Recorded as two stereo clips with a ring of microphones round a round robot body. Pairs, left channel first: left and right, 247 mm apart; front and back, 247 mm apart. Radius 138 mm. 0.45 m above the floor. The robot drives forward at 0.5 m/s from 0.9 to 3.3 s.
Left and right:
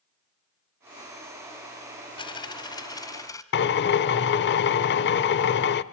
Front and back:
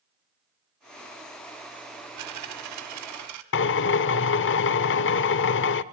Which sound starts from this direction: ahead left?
A drill, at 3.5 s.